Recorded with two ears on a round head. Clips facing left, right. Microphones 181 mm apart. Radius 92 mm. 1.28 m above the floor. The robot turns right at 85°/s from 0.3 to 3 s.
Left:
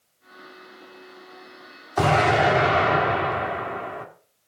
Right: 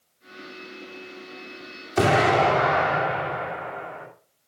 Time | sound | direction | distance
2.0 | an explosion | 25° right | 3 m